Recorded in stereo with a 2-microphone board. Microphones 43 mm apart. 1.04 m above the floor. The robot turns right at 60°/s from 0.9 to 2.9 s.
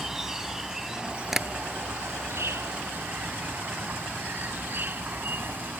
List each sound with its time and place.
0.0 s an insect: 170° right; by 5.8 s 50° right
1.3 s tapping: 5° right (ahead or behind); by 1.5 s 15° right (ahead or behind)